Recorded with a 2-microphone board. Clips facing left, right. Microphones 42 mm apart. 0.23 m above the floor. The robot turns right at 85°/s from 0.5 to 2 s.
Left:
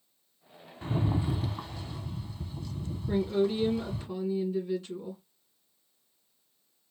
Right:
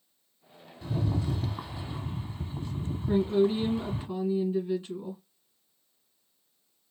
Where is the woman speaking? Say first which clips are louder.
Right 3 dB; 20° right (ahead or behind), 2 m.